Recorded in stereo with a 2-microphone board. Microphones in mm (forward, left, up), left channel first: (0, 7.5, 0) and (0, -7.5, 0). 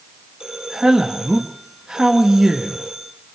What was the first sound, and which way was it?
A man speaking, 50° right (ahead or behind).